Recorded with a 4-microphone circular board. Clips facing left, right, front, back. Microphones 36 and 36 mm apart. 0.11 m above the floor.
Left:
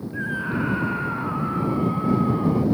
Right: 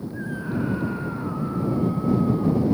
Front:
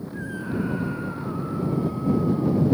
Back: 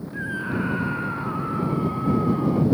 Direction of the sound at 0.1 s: 120° left.